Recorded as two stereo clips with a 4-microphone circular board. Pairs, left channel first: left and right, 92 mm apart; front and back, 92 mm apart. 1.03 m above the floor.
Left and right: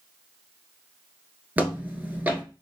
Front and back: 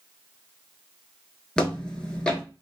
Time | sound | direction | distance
1.6 | footsteps | 60° right | 1.0 m